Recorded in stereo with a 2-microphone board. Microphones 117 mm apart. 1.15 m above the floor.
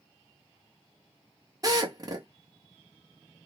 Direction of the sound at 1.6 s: 35° right (ahead or behind).